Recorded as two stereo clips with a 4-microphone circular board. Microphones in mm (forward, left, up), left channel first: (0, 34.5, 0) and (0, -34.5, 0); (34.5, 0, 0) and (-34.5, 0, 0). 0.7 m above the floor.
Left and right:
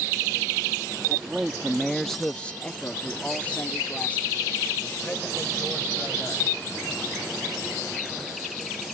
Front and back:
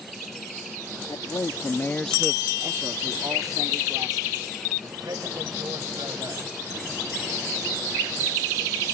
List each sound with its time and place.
1.1 s a man speaking: 10° right; by 6.4 s 160° left